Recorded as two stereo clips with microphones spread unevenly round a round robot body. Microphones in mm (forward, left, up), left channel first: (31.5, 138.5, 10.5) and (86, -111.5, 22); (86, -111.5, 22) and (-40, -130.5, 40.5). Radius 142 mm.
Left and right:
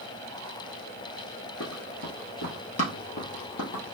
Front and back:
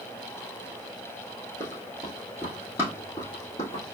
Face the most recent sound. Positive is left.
turn(degrees=70)